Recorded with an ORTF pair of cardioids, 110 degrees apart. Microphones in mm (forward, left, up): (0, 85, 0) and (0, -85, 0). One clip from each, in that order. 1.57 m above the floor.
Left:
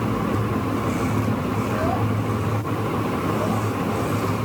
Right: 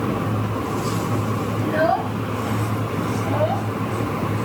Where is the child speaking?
65° right.